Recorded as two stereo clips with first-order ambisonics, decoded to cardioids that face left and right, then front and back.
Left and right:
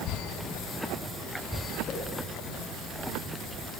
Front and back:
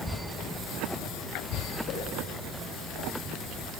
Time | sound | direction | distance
1.9 | a whoosh | 40° left | 6.5 m